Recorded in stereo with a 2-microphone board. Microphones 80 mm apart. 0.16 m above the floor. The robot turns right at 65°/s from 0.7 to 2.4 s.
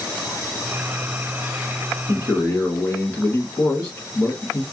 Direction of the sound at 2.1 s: 10° left (ahead or behind).